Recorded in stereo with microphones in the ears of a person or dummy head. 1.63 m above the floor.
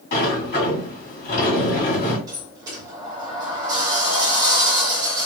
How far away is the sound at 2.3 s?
About 0.8 m.